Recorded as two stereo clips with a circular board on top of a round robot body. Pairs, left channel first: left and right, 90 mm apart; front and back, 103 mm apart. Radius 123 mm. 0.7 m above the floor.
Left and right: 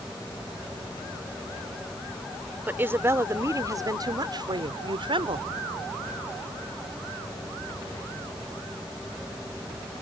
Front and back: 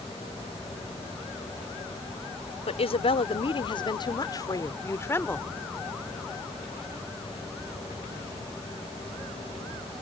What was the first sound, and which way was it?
A woman speaking, 20° right.